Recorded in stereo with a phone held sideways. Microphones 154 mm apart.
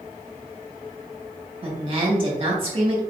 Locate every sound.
1.6 s a woman speaking: 35° right (ahead or behind), 1.9 m